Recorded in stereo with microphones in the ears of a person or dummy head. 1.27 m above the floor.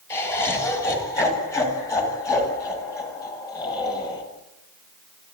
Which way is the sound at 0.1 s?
15° left (ahead or behind).